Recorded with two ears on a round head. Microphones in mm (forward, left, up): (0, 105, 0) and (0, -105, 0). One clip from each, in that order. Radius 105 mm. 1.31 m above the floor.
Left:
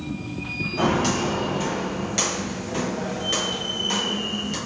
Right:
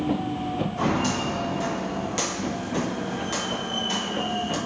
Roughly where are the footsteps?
Centre.